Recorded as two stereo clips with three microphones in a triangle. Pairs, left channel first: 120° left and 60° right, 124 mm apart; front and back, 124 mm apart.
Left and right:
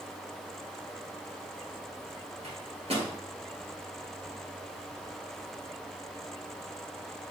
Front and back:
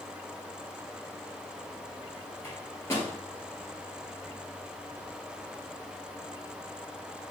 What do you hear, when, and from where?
2.4 s a microwave: 60° right, 1.5 m